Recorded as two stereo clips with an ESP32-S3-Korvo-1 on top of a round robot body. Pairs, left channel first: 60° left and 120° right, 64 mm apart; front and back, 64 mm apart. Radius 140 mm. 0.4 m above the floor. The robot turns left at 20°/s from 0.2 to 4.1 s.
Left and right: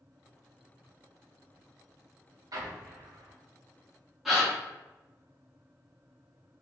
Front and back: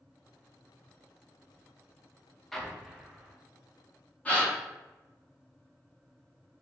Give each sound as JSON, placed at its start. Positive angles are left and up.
{"t": 2.5, "sound": "an explosion", "azimuth_deg": -85, "distance_m": 0.5}
{"t": 4.2, "sound": "a gasp", "azimuth_deg": -40, "distance_m": 1.4}